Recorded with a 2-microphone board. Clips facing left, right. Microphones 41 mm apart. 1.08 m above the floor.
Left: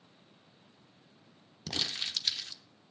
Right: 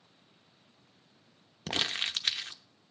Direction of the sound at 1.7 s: 45° right (ahead or behind).